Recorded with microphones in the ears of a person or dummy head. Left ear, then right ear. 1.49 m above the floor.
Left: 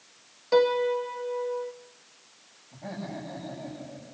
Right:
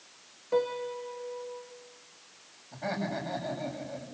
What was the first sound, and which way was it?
A piano, 75° left (ahead or behind).